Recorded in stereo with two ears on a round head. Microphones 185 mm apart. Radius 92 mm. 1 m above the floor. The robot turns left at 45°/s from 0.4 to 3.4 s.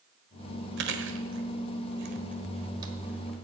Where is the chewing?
55° right (ahead or behind), 1.3 m; by 3.5 s centre (ahead or behind), 1.3 m.